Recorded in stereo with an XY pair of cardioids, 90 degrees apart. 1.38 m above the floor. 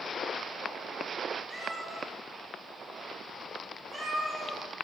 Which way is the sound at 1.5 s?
10° right.